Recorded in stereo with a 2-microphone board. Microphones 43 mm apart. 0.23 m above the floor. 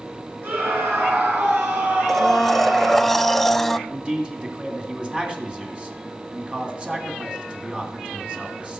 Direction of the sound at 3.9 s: 25° right (ahead or behind).